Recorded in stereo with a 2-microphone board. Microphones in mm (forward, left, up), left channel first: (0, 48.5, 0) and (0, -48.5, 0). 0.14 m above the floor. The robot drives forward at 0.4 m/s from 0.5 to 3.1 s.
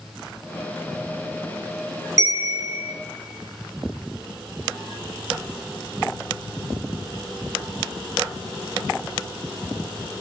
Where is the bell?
35° right (ahead or behind), 1.5 m; by 2.9 s 30° right (ahead or behind), 1.7 m.